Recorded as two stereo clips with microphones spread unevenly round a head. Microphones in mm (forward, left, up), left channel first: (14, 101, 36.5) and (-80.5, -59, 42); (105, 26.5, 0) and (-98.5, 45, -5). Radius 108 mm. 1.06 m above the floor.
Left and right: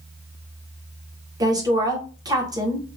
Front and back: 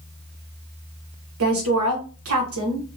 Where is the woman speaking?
170° left, 1.0 m.